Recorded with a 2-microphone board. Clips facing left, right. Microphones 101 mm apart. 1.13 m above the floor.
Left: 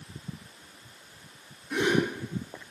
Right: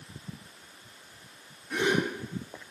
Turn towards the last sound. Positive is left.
turn(degrees=5)  # may be behind; listen again after turning